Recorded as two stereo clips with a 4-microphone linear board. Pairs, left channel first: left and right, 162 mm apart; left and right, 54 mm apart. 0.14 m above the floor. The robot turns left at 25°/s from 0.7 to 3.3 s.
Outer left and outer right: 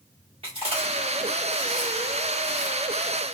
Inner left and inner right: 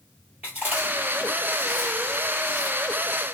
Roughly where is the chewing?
Right.